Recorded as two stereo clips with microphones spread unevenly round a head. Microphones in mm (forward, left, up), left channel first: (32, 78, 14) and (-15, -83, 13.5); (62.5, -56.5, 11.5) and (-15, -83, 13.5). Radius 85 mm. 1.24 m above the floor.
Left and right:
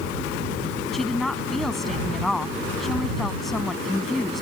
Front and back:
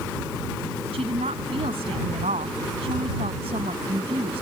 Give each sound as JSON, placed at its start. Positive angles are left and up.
{"t": 0.9, "sound": "a woman speaking", "azimuth_deg": 165}